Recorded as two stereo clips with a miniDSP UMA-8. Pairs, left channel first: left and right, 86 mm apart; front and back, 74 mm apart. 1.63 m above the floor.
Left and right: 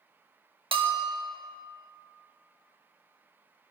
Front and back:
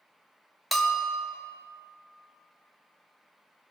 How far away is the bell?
About 1.1 m.